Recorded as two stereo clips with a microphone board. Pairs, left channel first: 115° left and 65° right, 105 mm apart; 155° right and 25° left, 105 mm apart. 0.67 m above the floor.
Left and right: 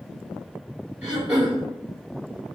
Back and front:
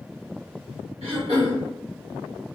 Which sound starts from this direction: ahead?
Throat clearing, at 1.0 s.